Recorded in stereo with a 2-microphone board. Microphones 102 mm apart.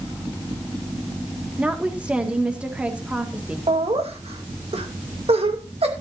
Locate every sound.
1.6 s a woman speaking: 10° right (ahead or behind), 1.9 m
3.7 s laughter: 75° right (ahead or behind), 2.5 m